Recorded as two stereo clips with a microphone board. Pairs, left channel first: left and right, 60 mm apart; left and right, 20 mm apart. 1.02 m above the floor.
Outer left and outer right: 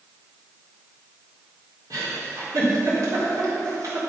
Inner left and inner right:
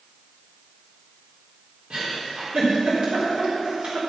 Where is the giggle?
75° right (ahead or behind), 3.5 m.